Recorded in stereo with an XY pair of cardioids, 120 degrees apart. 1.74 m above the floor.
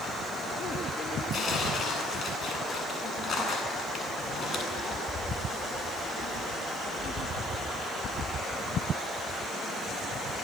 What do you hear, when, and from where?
1.3 s tearing paper: 45° left, 9 m